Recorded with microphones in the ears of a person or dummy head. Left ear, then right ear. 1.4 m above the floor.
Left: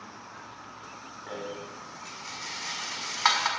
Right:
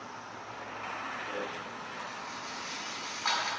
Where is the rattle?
75° left (ahead or behind), 5.5 m.